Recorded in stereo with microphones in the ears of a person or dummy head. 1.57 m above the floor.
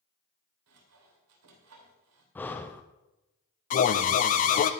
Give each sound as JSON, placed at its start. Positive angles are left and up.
{"t": 0.7, "sound": "sawing", "side_deg": -70, "distance_m": 3.0}
{"t": 2.4, "sound": "breathing", "side_deg": 10, "distance_m": 0.6}
{"t": 3.7, "sound": "an alarm", "side_deg": 40, "distance_m": 0.6}